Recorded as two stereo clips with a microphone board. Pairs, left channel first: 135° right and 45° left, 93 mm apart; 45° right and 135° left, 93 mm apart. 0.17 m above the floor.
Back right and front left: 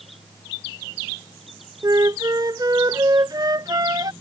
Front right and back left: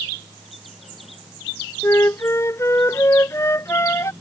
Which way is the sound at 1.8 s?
10° left.